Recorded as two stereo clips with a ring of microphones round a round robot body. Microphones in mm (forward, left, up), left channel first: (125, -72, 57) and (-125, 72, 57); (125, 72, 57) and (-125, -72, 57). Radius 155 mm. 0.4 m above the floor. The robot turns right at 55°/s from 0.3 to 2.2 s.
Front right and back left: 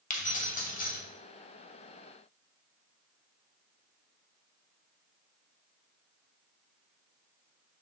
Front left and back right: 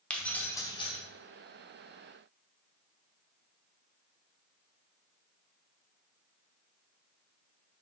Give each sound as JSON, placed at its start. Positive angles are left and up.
{"t": 0.1, "sound": "keys jangling", "azimuth_deg": -50, "distance_m": 0.8}